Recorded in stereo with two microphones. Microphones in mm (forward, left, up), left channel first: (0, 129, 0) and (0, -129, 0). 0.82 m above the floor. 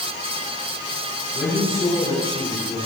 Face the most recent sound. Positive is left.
turn(degrees=25)  # may be behind; listen again after turning